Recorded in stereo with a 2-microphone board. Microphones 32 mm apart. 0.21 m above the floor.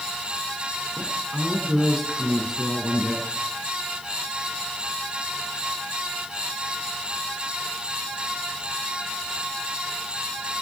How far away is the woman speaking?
About 6.5 m.